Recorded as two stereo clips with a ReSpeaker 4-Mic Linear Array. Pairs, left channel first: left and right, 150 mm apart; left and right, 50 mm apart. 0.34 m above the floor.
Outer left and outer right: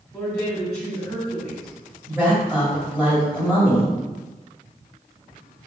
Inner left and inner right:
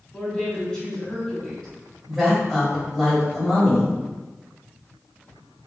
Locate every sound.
0.1 s a woman speaking: 20° left (ahead or behind), 2 m
2.1 s a woman speaking: 5° left (ahead or behind), 1.8 m